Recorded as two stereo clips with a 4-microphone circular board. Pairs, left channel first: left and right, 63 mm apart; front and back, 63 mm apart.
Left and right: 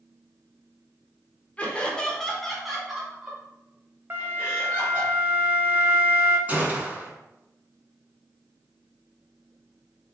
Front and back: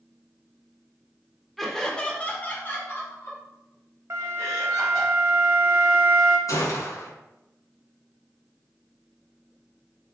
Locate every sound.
1.6 s laughter: 85° left, 0.9 m; by 5.1 s 25° right, 2 m
4.1 s a flute: 140° right, 0.6 m
6.5 s a gunshot: 30° right, 1.0 m